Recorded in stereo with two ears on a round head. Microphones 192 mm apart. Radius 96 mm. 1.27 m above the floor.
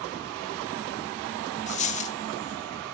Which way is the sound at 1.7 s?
30° left (ahead or behind).